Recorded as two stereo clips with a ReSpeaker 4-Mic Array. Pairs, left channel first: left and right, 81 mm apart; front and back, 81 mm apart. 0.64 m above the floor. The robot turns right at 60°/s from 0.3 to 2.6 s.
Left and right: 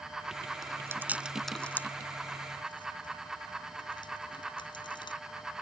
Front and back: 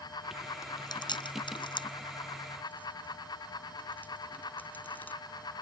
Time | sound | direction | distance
0.6 | chewing | 50° right | ?